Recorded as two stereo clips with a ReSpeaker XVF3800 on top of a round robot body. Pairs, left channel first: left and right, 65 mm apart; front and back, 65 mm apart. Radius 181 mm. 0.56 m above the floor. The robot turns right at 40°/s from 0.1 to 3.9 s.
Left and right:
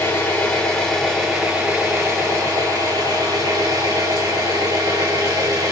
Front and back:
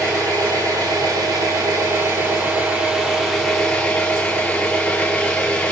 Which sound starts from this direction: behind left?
An engine running, at 0.0 s.